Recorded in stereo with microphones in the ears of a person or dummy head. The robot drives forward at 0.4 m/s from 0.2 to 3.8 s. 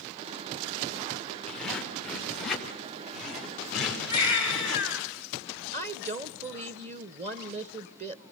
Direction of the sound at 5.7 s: 35° right (ahead or behind).